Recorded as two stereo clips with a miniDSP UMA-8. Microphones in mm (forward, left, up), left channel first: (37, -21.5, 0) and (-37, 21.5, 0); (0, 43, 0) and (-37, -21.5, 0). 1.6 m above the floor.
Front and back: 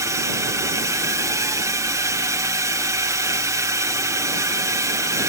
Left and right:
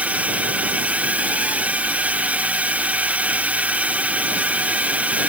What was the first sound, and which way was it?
A drone, straight behind.